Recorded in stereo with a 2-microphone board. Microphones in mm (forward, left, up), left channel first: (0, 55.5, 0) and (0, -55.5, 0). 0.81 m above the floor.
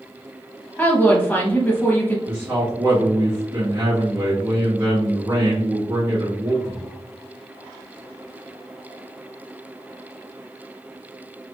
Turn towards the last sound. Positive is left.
turn(degrees=-25)  # may be behind; listen again after turning